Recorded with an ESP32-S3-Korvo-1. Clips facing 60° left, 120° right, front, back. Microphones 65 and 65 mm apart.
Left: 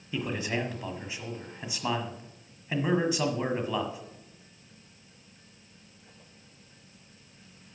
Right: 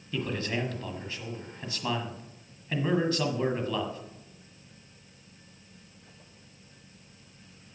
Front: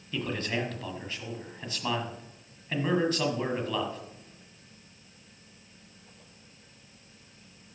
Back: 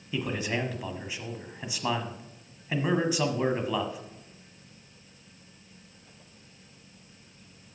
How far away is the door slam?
No door slam in this recording.